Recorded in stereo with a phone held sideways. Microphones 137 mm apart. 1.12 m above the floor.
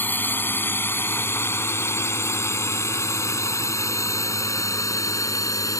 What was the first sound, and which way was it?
A drone, 15° left (ahead or behind).